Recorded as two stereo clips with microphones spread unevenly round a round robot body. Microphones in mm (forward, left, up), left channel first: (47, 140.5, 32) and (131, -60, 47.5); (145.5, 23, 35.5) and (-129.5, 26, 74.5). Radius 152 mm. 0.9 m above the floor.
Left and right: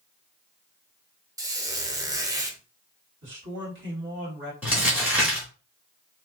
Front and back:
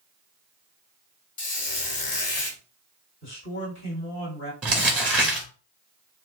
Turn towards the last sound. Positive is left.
turn(degrees=-125)